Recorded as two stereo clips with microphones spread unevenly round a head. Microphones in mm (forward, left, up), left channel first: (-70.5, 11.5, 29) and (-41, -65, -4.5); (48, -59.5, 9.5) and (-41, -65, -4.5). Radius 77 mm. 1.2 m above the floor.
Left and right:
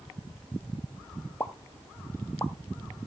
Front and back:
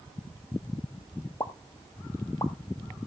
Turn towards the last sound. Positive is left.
turn(degrees=60)